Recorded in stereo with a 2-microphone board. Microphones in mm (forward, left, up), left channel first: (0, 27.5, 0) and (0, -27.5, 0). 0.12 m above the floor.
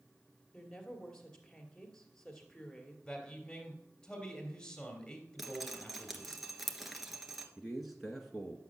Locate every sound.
0.5 s a woman speaking: 10° left (ahead or behind), 2.5 m
3.0 s a man speaking: 15° left (ahead or behind), 2.5 m
5.4 s dripping: 5° right (ahead or behind), 1.4 m
7.6 s a man speaking: centre (ahead or behind), 1.2 m